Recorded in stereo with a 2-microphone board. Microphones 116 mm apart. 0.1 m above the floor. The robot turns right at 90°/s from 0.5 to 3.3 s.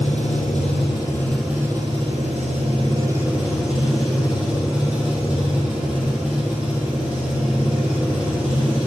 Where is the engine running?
100° left, 1.7 m; by 8.9 s 10° right, 1.7 m.